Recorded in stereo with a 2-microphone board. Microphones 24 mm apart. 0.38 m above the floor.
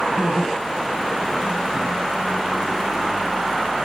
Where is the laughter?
70° right (ahead or behind), 5 m.